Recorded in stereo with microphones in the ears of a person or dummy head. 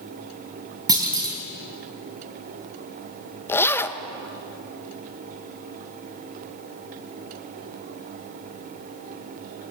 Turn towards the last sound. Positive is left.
turn(degrees=15)  # may be behind; listen again after turning